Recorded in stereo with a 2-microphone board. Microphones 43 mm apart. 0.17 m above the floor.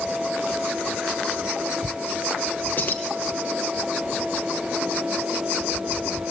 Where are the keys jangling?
50° left (ahead or behind), 3 m.